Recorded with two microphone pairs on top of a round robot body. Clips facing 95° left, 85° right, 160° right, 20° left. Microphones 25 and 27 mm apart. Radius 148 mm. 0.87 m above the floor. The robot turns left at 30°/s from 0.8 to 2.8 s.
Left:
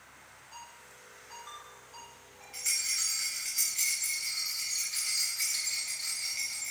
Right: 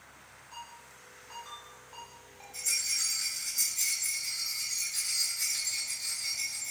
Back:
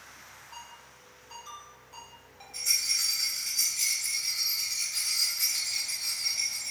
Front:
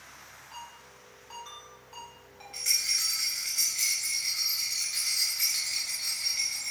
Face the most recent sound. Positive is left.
turn(degrees=50)